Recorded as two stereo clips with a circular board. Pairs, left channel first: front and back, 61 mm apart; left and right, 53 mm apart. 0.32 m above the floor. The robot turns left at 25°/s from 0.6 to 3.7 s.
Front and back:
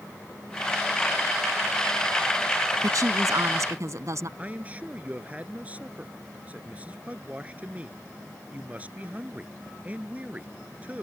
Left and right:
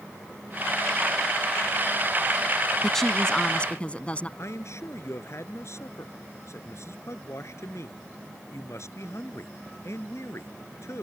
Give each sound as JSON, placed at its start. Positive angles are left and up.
{"t": 2.8, "sound": "a woman speaking", "azimuth_deg": 175}
{"t": 4.4, "sound": "a man speaking", "azimuth_deg": 115}